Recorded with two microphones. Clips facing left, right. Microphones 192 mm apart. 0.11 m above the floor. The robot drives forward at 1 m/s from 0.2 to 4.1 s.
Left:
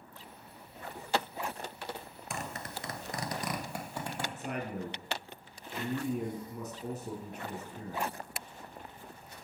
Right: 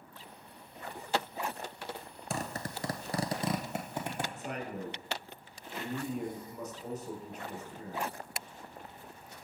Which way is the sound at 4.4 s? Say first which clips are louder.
Left 2 dB; 55° left (ahead or behind).